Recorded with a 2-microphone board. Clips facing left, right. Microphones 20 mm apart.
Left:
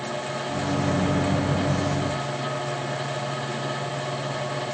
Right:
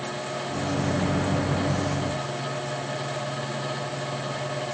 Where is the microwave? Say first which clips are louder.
Left 2 dB; centre (ahead or behind), 0.9 m.